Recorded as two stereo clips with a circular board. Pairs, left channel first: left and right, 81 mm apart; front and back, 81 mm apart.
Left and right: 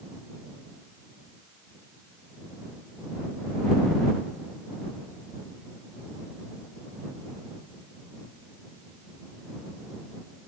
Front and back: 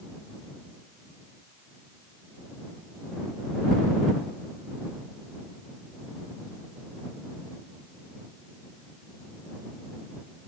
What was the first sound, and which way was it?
Only background noise.